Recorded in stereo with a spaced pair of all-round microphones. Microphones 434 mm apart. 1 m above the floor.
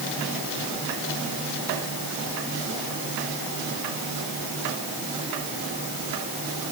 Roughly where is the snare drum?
No snare drum in this recording.